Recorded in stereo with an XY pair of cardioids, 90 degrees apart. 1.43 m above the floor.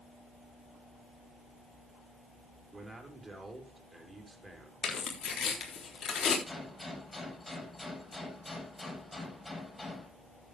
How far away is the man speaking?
About 5 m.